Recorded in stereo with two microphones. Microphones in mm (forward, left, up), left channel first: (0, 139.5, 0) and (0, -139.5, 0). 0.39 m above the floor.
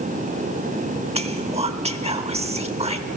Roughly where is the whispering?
Centre.